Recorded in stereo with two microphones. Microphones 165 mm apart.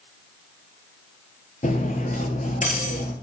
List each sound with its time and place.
1.6 s cutlery clinking: 50° left (ahead or behind), 1.2 m